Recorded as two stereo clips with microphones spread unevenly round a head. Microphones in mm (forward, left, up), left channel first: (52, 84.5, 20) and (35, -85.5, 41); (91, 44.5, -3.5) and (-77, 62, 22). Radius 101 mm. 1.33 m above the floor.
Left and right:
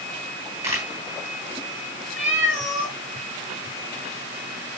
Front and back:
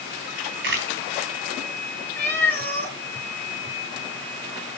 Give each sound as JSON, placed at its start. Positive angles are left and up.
{"t": 0.6, "sound": "a camera shutter", "azimuth_deg": -170, "distance_m": 3.0}
{"t": 2.2, "sound": "a cat meowing", "azimuth_deg": 75, "distance_m": 4.5}